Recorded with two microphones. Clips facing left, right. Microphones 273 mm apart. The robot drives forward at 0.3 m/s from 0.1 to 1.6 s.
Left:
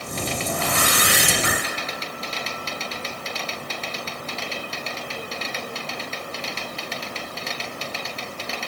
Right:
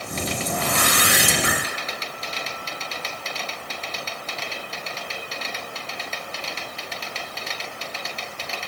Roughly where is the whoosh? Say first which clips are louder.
Even; right.